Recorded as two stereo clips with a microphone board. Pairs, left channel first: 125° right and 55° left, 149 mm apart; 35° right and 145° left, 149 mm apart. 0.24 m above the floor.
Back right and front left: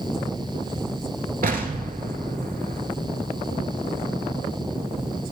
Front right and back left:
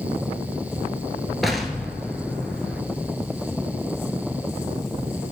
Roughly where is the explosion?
Ahead left.